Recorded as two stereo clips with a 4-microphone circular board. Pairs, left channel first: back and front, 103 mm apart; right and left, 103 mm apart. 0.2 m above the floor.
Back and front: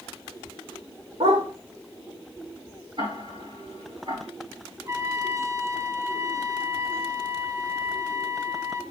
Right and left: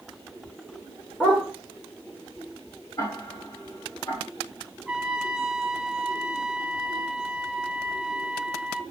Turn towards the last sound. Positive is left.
turn(degrees=10)